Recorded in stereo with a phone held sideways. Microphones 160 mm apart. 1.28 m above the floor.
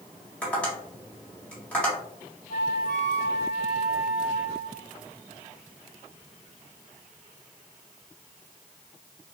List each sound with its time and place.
0.4 s tapping: 10° left (ahead or behind), 1.8 m
2.5 s a flute: 65° left (ahead or behind), 1.1 m